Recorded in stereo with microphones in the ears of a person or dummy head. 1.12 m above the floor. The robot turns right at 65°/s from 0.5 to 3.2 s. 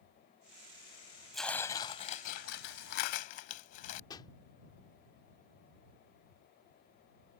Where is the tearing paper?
Straight ahead; by 4.0 s 120° left.